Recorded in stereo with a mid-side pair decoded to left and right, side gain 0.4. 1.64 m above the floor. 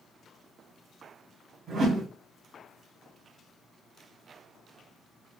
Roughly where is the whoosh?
Ahead right.